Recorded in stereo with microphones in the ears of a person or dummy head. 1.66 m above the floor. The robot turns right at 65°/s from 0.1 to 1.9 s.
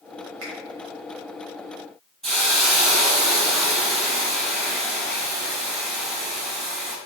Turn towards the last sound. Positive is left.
turn(degrees=5)  # may be behind; listen again after turning